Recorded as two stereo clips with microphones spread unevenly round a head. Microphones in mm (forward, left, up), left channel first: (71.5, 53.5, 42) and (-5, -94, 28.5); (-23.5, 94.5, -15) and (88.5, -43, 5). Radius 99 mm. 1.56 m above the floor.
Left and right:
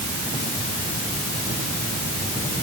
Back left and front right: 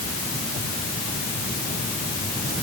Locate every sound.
Only background noise.